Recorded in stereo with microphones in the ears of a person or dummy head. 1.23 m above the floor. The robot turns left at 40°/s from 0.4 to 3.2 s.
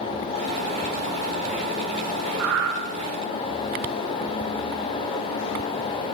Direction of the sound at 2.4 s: 75° right (ahead or behind).